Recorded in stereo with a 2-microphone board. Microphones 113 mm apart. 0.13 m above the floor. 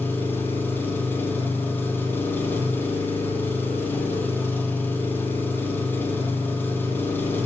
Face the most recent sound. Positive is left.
turn(degrees=20)  # may be behind; listen again after turning